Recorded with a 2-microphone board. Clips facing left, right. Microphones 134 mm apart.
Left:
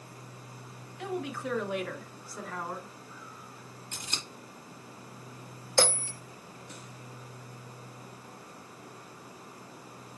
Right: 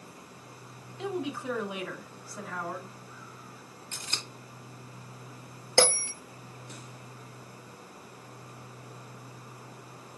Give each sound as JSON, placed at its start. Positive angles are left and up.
{"t": 1.0, "sound": "a woman speaking", "side_deg": -25, "distance_m": 1.3}
{"t": 3.9, "sound": "scissors", "side_deg": 15, "distance_m": 1.4}
{"t": 5.8, "sound": "a bell", "side_deg": -75, "distance_m": 1.2}